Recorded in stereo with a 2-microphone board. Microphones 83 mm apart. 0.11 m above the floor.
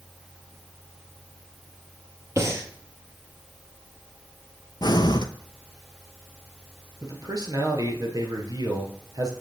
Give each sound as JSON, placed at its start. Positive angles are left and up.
{"t": 2.4, "sound": "breathing", "side_deg": -35, "distance_m": 1.4}
{"t": 4.8, "sound": "breathing", "side_deg": 60, "distance_m": 0.5}
{"t": 7.0, "sound": "a man speaking", "side_deg": -50, "distance_m": 1.9}